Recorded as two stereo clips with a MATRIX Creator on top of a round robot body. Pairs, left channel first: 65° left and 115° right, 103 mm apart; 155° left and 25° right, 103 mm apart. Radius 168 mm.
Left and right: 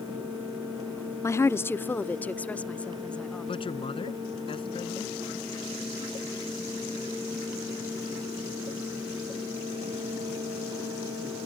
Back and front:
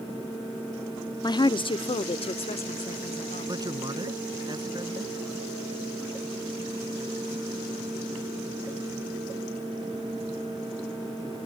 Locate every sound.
1.2 s a woman speaking: 120° left; by 3.6 s 150° left
3.5 s a man speaking: 30° left